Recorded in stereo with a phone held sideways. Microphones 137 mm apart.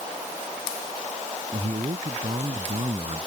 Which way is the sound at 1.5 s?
50° right (ahead or behind).